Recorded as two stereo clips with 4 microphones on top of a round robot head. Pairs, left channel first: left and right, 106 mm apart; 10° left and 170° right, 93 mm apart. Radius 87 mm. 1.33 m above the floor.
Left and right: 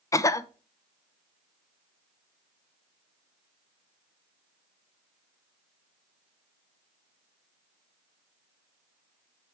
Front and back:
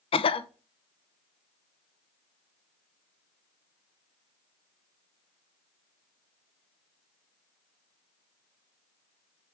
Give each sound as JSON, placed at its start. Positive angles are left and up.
{"t": 0.1, "sound": "a cough", "azimuth_deg": 30, "distance_m": 0.8}